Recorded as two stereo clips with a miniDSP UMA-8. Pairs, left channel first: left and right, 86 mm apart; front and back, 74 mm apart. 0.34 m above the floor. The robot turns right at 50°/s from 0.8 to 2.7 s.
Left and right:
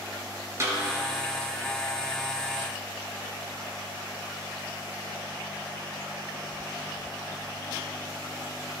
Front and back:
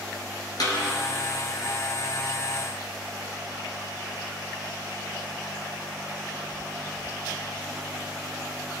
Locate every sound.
0.6 s a snare drum: 35° right, 2.5 m